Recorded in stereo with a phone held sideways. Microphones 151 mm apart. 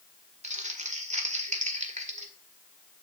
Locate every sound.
0.4 s crumpling: 50° right (ahead or behind), 1.6 m